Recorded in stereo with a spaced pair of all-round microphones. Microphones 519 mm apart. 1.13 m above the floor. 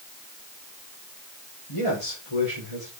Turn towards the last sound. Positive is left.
turn(degrees=80)